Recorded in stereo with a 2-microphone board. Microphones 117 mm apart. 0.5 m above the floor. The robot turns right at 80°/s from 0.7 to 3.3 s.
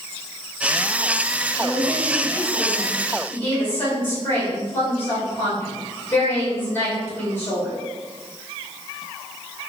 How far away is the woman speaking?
About 1.8 m.